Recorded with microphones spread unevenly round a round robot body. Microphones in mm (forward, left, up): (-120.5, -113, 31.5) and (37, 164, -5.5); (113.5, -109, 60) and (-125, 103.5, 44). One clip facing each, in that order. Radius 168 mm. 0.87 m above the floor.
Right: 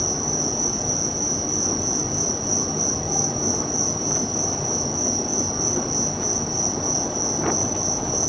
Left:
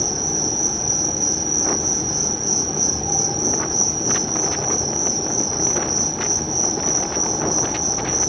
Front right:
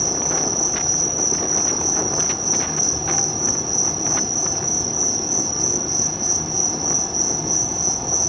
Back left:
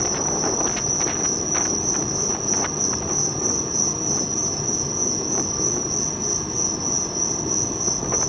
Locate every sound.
0.0 s an insect: 15° right, 0.9 m